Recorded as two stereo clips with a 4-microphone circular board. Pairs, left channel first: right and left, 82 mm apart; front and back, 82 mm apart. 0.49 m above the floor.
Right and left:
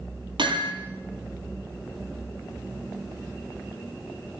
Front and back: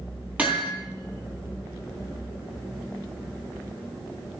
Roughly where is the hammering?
Left.